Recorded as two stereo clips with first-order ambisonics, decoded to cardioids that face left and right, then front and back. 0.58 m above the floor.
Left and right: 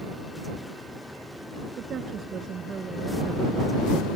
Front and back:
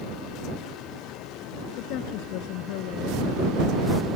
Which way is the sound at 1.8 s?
30° right.